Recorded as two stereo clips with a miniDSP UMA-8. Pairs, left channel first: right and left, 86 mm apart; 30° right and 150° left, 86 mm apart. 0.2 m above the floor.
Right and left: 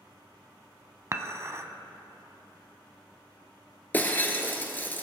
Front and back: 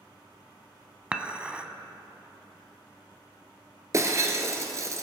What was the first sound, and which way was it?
Dishes clattering, 85° left.